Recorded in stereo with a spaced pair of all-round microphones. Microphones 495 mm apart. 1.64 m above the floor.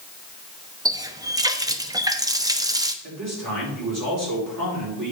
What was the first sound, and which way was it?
A running tap, 10° right (ahead or behind).